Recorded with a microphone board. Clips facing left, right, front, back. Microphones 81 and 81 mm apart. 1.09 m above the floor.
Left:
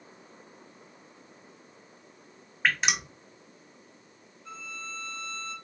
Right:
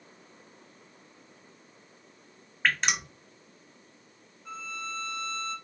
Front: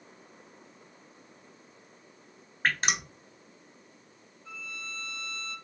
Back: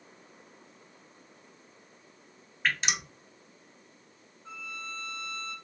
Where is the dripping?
5° left, 0.7 m.